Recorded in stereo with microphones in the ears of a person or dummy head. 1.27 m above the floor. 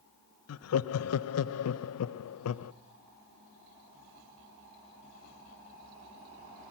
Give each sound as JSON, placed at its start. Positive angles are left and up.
{"t": 0.5, "sound": "laughter", "side_deg": 85, "distance_m": 0.8}